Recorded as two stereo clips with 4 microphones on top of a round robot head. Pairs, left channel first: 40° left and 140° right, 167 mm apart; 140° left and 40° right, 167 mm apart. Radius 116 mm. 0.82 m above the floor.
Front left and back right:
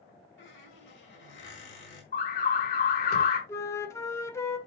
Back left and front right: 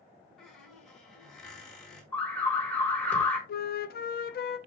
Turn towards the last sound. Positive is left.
turn(degrees=110)